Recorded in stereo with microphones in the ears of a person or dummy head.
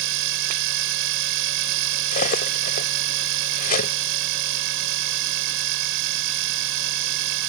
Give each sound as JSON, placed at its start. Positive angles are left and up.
{"t": 0.0, "sound": "a machine running", "side_deg": -65}
{"t": 2.1, "sound": "cutlery clinking", "side_deg": 50}